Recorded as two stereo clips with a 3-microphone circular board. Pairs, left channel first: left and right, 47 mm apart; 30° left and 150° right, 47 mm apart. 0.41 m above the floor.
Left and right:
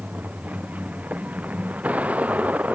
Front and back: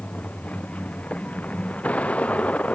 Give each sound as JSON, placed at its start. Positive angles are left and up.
{"t": 0.0, "sound": "a vehicle", "azimuth_deg": -30}